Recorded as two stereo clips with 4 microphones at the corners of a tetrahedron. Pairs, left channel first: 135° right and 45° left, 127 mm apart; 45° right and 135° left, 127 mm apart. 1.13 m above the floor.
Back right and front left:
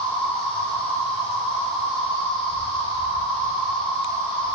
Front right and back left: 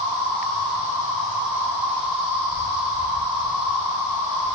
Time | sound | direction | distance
0.0 | an insect | 175° right | 1.4 m